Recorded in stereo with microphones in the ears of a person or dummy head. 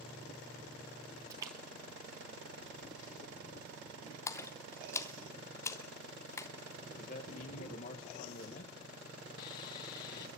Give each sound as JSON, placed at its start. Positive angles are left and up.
{"t": 1.3, "sound": "a splash", "side_deg": -20, "distance_m": 2.5}
{"t": 4.3, "sound": "a splash", "side_deg": 15, "distance_m": 1.1}
{"t": 6.9, "sound": "a man speaking", "side_deg": 45, "distance_m": 1.6}
{"t": 9.4, "sound": "sawing", "side_deg": 20, "distance_m": 0.6}